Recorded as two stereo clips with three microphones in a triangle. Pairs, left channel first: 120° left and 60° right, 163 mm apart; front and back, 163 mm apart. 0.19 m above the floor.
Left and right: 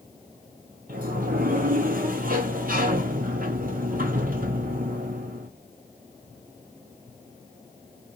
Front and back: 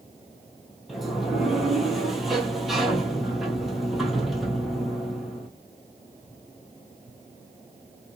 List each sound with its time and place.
0.9 s a sliding door: 90° right, 0.9 m